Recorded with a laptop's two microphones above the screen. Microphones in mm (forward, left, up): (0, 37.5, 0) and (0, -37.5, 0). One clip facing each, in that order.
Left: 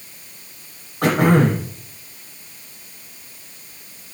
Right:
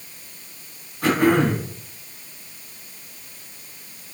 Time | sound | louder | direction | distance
1.0 | throat clearing | left 2 dB | 60° left (ahead or behind) | 6 m